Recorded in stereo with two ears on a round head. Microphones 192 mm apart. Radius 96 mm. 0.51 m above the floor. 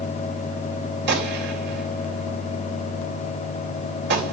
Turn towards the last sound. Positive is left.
turn(degrees=-60)  # may be behind; listen again after turning